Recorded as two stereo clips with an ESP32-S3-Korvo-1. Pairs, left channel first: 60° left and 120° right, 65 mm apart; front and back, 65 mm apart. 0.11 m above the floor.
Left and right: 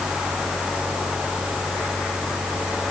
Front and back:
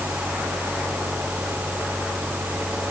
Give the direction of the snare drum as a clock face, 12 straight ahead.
No snare drum in this recording.